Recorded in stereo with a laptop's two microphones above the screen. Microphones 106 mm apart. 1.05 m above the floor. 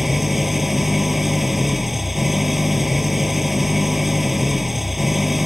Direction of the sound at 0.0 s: Centre (ahead or behind).